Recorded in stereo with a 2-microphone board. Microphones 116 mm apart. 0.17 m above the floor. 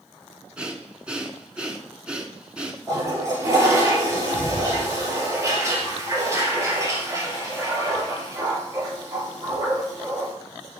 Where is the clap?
No clap in this recording.